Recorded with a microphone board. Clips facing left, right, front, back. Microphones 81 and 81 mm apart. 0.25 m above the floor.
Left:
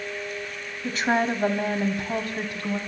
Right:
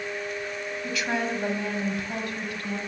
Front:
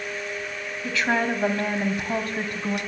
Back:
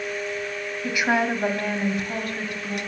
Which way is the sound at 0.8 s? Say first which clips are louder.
Left 6 dB, back 1 dB; 120° left.